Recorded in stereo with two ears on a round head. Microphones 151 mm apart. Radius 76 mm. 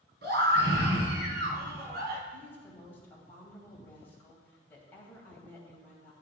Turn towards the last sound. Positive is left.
turn(degrees=10)  # may be behind; listen again after turning